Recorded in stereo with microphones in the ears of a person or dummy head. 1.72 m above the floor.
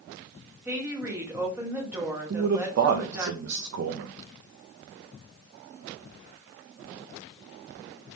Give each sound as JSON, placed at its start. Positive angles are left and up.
{"t": 0.7, "sound": "a woman speaking", "side_deg": -10, "distance_m": 1.1}
{"t": 2.3, "sound": "a man speaking", "side_deg": -60, "distance_m": 0.5}